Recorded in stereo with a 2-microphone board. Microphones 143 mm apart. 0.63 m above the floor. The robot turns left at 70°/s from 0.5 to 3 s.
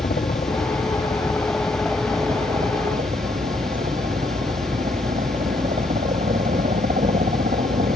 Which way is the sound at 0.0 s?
90° left.